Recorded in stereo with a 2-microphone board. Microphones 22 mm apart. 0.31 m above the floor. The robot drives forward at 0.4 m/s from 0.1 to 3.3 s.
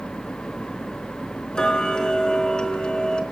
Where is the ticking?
40° left (ahead or behind), 3.5 m; by 3.2 s 45° left (ahead or behind), 3.5 m.